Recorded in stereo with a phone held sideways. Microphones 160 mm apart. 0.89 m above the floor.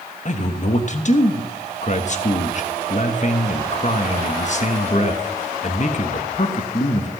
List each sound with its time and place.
0.2 s a man speaking: 50° left (ahead or behind), 1.1 m